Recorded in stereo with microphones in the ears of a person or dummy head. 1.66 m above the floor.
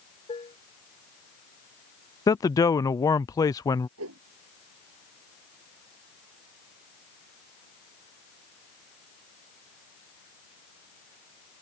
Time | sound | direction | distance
0.3 | dishes clattering | 20° left (ahead or behind) | ?
2.3 | a man speaking | 15° left (ahead or behind) | ?
4.0 | a whoosh | 80° right | ?